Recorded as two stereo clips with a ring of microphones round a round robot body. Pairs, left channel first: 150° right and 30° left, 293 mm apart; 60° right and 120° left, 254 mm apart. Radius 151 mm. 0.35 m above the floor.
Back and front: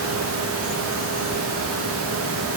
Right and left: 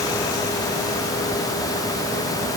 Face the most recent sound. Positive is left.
No sound to turn to.